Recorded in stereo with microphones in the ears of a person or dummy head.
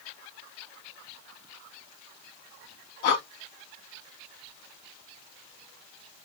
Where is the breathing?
60° left (ahead or behind), 1.1 m.